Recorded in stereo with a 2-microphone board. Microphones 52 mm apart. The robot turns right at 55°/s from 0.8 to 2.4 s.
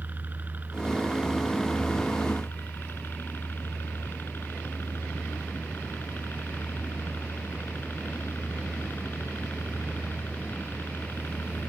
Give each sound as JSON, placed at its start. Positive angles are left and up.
{"t": 0.0, "sound": "a helicopter", "azimuth_deg": -40}